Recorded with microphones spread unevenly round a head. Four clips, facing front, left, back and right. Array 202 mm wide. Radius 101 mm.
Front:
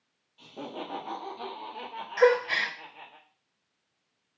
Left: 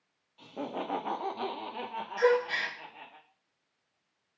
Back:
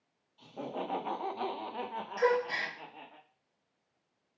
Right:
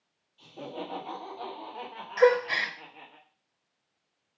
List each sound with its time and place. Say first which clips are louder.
0.4 s laughter: left 2 dB, even; 65° left, 1.2 m; by 3.2 s straight behind, 1.3 m
2.2 s a gasp: right 4 dB, front 7 dB; 40° right, 0.8 m